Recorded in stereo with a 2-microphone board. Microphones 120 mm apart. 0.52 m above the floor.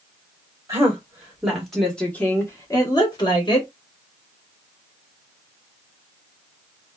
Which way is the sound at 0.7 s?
25° right (ahead or behind).